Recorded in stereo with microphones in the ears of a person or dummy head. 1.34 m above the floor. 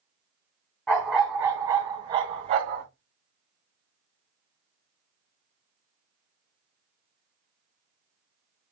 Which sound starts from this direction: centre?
A dog barking, at 0.9 s.